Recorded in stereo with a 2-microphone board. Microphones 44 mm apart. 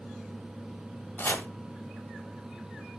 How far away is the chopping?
About 1.0 m.